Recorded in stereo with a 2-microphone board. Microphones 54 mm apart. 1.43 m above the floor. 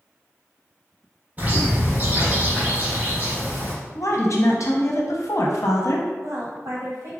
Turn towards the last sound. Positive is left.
turn(degrees=-80)